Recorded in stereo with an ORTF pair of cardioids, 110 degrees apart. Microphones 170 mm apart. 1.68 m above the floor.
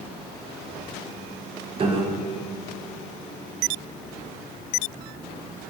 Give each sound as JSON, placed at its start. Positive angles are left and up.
{"t": 1.8, "sound": "a piano", "azimuth_deg": -30, "distance_m": 0.9}